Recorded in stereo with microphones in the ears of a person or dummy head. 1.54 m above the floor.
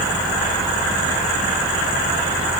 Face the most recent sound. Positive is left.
No sound to turn to.